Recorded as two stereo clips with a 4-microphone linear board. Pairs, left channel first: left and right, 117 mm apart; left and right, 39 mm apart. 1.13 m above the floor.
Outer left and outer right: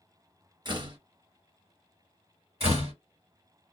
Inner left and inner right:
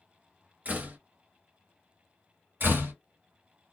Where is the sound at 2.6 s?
65° right (ahead or behind), 1.7 m.